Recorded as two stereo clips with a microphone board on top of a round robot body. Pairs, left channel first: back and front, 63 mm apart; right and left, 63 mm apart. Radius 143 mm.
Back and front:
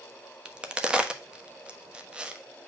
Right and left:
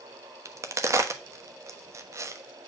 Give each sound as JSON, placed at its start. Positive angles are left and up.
{"t": 0.5, "sound": "a crack", "azimuth_deg": 70, "distance_m": 1.3}